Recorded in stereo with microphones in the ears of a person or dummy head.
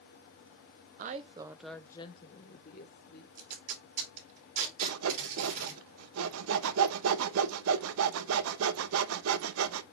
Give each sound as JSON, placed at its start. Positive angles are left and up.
{"t": 1.0, "sound": "a woman speaking", "side_deg": -40, "distance_m": 0.6}
{"t": 3.4, "sound": "tape being pulled", "side_deg": -45, "distance_m": 3.0}
{"t": 4.8, "sound": "sawing", "side_deg": -85, "distance_m": 0.8}